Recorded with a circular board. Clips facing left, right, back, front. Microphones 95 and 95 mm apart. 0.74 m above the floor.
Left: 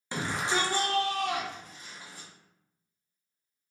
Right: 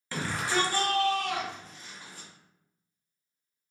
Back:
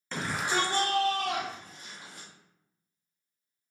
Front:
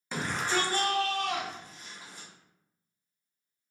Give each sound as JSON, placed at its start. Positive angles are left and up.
{"t": 0.1, "sound": "a shout", "azimuth_deg": 75, "distance_m": 0.6}